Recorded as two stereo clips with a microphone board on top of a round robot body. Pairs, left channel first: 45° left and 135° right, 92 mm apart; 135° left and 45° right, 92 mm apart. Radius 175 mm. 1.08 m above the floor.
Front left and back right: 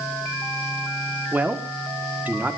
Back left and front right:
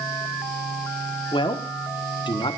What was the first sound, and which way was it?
A man speaking, 155° left.